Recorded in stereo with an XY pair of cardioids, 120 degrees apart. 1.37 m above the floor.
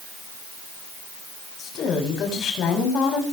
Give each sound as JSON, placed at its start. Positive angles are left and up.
{"t": 1.6, "sound": "a woman speaking", "azimuth_deg": 60, "distance_m": 7.5}